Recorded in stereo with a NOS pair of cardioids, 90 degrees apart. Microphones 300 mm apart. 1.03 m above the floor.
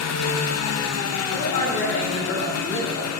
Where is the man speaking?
65° left, 3.5 m.